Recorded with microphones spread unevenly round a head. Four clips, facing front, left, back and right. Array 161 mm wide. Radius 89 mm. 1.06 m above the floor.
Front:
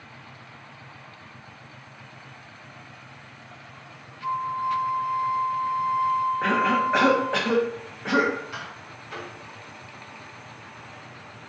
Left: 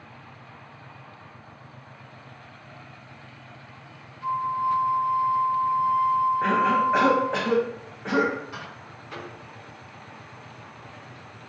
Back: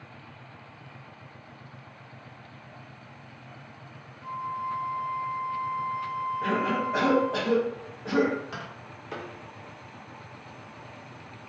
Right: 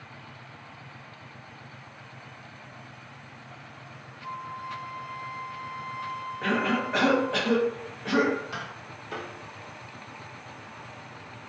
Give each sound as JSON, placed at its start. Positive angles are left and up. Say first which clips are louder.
{"t": 4.2, "sound": "a flute", "louder": "left 12 dB, front 6 dB", "azimuth_deg": 30, "distance_m": 0.6}
{"t": 6.4, "sound": "a cough", "louder": "left 6 dB, front 1 dB", "azimuth_deg": 15, "distance_m": 0.7}
{"t": 8.5, "sound": "tapping", "louder": "right 1 dB, front 2 dB", "azimuth_deg": -160, "distance_m": 0.5}